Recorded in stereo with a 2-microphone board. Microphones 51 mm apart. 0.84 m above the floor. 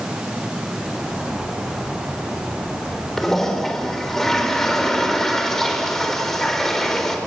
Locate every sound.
3.2 s a toilet flushing: 5° left (ahead or behind), 4 m